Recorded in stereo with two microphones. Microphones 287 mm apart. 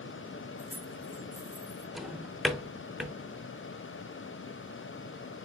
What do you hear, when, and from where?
0.6 s keys jangling: 5° left (ahead or behind), 0.8 m; by 1.9 s 50° right (ahead or behind), 2 m
1.9 s a drawer: centre (ahead or behind), 0.6 m